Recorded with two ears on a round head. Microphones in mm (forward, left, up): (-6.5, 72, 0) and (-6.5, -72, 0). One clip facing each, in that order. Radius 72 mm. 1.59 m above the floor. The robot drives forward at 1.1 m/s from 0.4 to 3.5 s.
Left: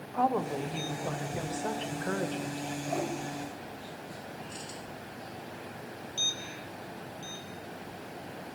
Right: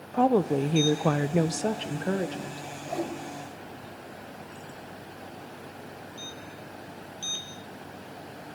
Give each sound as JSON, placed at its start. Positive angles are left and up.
{"t": 0.1, "sound": "a woman speaking", "side_deg": -45, "distance_m": 1.0}
{"t": 2.9, "sound": "a whoosh", "side_deg": -5, "distance_m": 3.0}